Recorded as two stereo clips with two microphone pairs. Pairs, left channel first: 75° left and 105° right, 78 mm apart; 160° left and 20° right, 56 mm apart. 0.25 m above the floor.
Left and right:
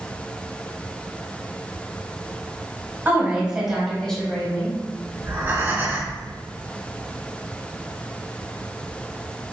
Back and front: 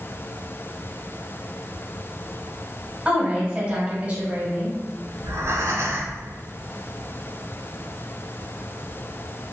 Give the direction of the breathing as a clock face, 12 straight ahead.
1 o'clock.